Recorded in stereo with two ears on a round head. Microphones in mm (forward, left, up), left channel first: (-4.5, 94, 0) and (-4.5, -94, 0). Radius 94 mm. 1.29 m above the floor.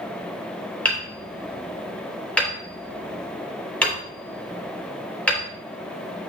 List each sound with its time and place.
0.8 s hammering: 5° left (ahead or behind), 3.5 m